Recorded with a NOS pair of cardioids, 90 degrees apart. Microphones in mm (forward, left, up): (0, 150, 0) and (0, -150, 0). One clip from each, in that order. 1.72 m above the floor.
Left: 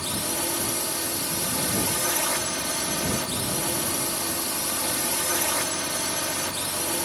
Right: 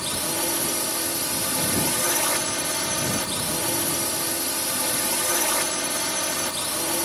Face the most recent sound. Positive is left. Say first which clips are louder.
# right 2 dB
turn(degrees=-20)